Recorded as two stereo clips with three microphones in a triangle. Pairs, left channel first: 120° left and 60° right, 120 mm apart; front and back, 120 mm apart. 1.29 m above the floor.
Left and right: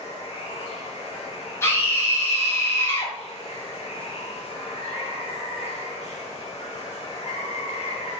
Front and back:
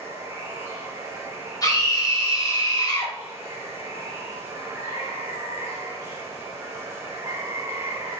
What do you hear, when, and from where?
0.0 s running water: 115° left, 2.5 m
1.6 s a scream: 55° left, 3 m